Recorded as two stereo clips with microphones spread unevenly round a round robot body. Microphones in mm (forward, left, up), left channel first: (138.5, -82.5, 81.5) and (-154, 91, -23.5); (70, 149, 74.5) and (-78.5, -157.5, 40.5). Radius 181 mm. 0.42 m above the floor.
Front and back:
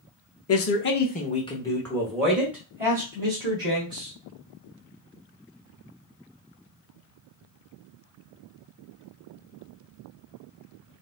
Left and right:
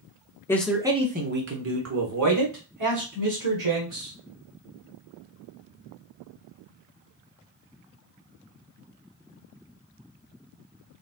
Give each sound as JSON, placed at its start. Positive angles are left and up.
{"t": 0.5, "sound": "a man speaking", "azimuth_deg": -20, "distance_m": 0.8}